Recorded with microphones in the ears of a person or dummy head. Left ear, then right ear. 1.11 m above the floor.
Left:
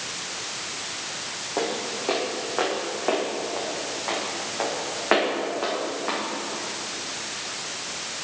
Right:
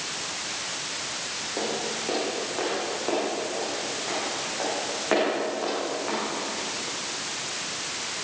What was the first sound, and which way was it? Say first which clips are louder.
Footsteps: left 3 dB; 45° left (ahead or behind).